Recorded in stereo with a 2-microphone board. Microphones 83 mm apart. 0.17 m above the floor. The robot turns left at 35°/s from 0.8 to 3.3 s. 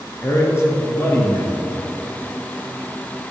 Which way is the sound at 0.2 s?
145° left.